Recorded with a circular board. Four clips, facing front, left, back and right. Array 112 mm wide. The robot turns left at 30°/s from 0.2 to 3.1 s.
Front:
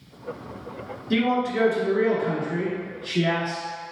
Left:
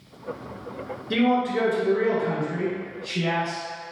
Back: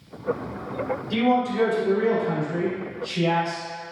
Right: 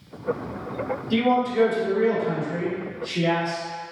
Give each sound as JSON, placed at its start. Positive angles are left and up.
{"t": 1.1, "sound": "a man speaking", "azimuth_deg": 55, "distance_m": 1.9}